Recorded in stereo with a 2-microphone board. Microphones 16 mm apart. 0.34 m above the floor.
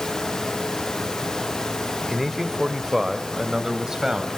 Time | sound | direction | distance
2.1 | a man speaking | 15° right (ahead or behind) | 1.1 m